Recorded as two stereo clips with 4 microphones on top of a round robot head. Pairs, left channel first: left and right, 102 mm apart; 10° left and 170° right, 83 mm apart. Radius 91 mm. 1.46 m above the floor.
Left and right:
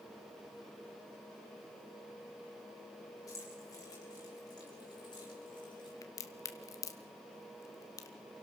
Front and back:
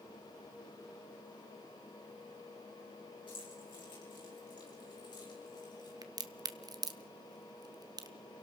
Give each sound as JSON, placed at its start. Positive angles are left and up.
{"t": 3.3, "sound": "keys jangling", "azimuth_deg": 30, "distance_m": 7.5}
{"t": 6.0, "sound": "a crack", "azimuth_deg": 150, "distance_m": 1.2}